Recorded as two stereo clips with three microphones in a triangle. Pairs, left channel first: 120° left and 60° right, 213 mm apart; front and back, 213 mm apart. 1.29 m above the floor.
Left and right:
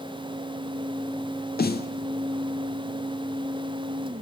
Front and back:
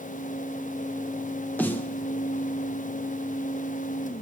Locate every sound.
1.6 s a snare drum: 80° left, 0.6 m